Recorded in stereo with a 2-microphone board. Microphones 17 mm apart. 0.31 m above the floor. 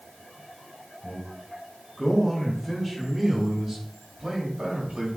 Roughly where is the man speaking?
Left.